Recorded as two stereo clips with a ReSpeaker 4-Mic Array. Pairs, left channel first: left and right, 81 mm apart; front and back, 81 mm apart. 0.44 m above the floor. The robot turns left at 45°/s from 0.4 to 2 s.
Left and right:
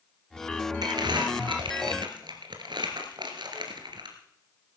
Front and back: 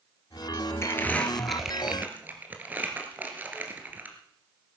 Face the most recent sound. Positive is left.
turn(degrees=-110)